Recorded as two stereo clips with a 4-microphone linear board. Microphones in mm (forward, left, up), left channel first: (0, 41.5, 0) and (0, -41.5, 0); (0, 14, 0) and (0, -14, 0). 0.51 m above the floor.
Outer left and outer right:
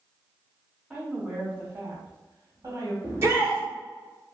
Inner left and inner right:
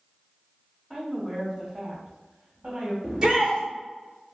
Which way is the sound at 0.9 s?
5° right (ahead or behind).